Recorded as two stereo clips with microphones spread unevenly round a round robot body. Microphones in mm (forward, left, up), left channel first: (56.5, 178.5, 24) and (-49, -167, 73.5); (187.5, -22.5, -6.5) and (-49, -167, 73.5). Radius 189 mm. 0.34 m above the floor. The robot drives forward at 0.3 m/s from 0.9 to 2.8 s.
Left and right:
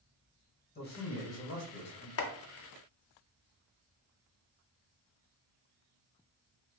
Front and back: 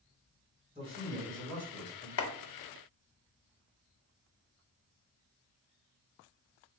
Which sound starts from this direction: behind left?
A man speaking, at 0.8 s.